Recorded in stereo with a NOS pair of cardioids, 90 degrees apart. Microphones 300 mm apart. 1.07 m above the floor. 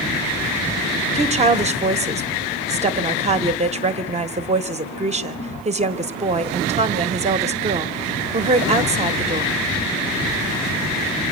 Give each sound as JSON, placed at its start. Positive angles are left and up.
{"t": 1.1, "sound": "a woman speaking", "azimuth_deg": -25, "distance_m": 1.1}